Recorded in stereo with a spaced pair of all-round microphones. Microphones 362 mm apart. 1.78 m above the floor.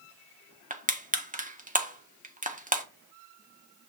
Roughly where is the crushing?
Right.